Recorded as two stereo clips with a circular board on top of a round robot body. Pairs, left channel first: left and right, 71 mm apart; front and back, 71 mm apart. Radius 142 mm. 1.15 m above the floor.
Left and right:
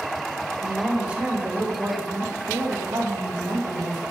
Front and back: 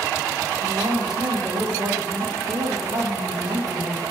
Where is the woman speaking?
170° right, 1.9 m; by 4.0 s 125° right, 2.5 m.